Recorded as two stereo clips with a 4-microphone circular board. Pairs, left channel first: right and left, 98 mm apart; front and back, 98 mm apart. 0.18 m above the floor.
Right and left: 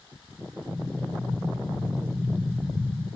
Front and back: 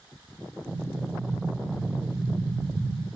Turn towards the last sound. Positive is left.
turn(degrees=-165)